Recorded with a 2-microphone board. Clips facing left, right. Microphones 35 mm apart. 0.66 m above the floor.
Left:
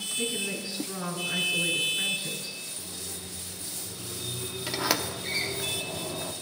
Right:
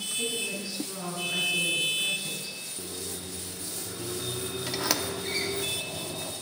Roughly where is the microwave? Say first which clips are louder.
Right 2 dB; right.